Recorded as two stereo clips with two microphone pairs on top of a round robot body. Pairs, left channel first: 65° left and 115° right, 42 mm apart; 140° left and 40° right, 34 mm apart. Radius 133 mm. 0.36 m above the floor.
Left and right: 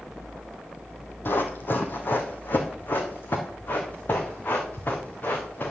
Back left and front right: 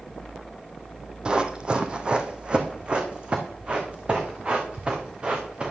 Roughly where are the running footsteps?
Ahead left.